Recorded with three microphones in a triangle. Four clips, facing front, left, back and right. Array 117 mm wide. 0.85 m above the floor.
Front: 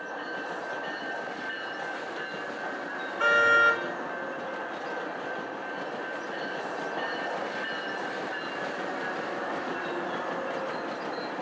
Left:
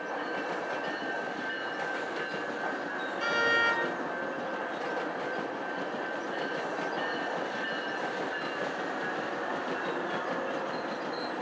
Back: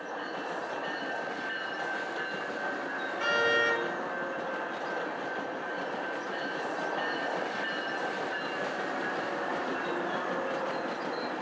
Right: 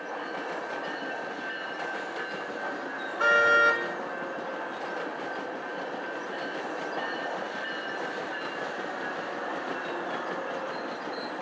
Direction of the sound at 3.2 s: 55° right.